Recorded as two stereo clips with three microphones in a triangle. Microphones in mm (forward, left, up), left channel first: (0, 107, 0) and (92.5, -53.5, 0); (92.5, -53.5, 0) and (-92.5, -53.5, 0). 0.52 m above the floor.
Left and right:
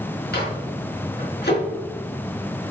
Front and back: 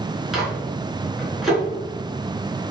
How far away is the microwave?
About 4.5 m.